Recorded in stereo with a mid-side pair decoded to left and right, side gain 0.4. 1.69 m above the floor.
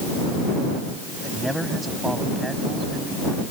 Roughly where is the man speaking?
Ahead.